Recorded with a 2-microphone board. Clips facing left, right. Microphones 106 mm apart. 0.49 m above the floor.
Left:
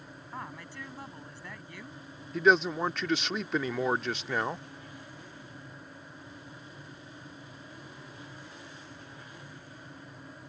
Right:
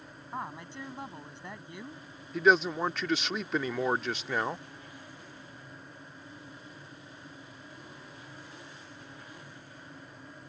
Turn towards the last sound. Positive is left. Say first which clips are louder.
# even
turn(degrees=0)  # may be behind; listen again after turning